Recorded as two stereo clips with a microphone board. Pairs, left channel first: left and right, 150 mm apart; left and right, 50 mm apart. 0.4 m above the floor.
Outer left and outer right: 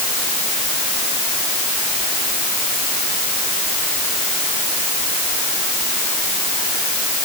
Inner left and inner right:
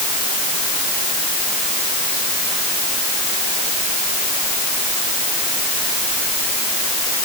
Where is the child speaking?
I don't hear a child speaking.